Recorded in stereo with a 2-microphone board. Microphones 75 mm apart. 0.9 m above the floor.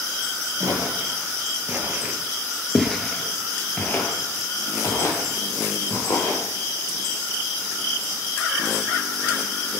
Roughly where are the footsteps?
Right.